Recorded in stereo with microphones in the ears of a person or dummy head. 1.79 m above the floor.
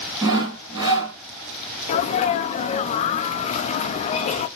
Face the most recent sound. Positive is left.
turn(degrees=45)  # may be behind; listen again after turning